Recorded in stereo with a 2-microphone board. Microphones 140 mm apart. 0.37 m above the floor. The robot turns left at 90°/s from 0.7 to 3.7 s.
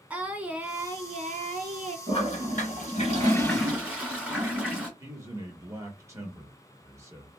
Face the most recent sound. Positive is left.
turn(degrees=-20)  # may be behind; listen again after turning